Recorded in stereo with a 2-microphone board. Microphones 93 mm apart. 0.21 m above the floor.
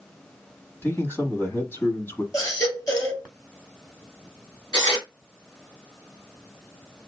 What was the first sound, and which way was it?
A man speaking, 25° left (ahead or behind).